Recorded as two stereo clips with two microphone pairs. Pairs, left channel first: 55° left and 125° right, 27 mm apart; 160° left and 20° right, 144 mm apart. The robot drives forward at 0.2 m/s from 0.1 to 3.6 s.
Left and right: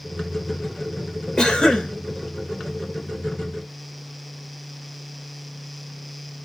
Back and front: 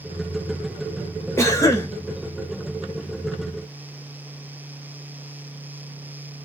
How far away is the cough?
About 0.8 m.